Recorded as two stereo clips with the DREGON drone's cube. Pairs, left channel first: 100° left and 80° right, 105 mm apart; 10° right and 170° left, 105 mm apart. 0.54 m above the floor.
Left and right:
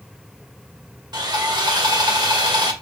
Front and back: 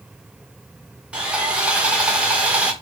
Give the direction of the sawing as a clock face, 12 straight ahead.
4 o'clock.